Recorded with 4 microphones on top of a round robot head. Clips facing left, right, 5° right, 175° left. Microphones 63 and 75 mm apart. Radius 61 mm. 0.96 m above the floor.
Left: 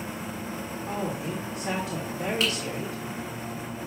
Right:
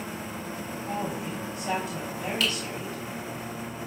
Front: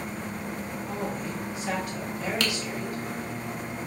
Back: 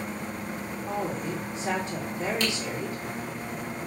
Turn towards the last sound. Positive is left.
turn(degrees=20)